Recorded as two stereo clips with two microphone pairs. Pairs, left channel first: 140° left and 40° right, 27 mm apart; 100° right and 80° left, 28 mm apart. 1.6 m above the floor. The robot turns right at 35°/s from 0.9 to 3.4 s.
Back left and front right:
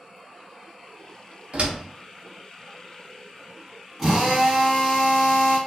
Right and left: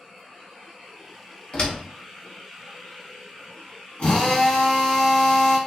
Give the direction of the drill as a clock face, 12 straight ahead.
4 o'clock.